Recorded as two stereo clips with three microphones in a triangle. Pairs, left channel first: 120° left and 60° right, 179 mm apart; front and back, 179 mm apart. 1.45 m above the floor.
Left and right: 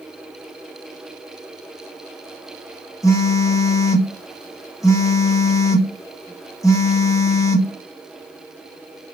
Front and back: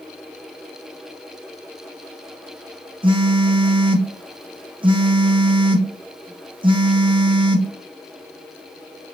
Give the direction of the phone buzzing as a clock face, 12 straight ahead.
6 o'clock.